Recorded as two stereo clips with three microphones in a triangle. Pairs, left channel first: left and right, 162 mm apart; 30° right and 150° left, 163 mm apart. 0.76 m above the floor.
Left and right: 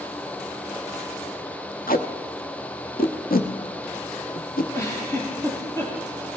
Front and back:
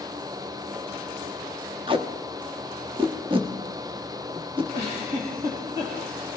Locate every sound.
1.9 s tape being pulled: 100° left, 0.9 m
4.7 s a giggle: 160° left, 5 m